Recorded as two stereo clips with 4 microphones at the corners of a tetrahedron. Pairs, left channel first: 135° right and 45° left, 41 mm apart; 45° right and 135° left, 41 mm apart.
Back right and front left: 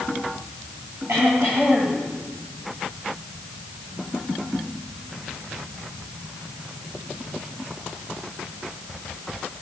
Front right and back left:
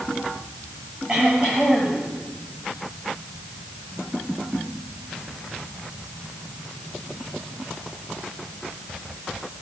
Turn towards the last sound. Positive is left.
turn(degrees=65)